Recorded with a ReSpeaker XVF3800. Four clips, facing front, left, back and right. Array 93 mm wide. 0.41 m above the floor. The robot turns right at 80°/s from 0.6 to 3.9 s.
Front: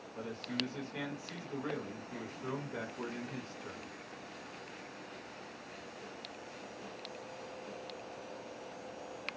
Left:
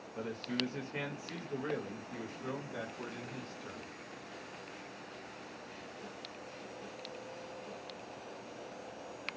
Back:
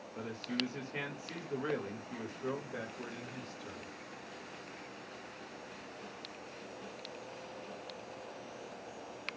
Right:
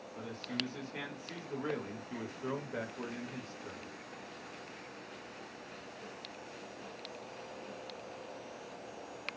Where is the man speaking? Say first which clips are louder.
Left 3 dB, back 1 dB; 115° left, 1.1 m; by 3.9 s 20° left, 1.1 m.